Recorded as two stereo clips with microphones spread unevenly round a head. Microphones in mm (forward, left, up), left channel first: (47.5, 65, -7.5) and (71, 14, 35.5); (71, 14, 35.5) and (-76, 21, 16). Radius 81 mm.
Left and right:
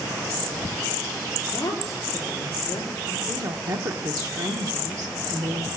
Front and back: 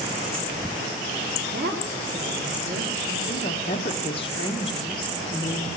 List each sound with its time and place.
1.4 s a woman speaking: 160° left, 4 m
3.3 s a woman speaking: 60° right, 1.3 m